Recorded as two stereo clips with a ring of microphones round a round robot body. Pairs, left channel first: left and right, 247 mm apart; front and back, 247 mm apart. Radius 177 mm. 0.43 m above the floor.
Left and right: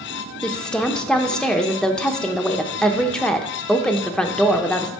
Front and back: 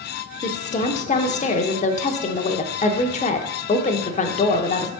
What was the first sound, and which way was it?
A woman speaking, 5° left.